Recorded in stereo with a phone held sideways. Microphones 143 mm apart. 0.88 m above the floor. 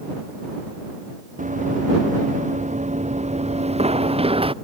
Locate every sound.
1.4 s running footsteps: 70° right (ahead or behind); by 4.5 s 40° right (ahead or behind)